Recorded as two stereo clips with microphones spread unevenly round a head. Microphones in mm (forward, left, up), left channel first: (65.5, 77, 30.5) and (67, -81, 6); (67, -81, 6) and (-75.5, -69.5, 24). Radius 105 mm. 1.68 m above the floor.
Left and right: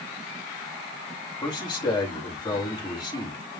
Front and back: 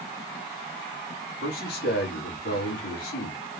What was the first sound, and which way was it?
A man speaking, 25° left.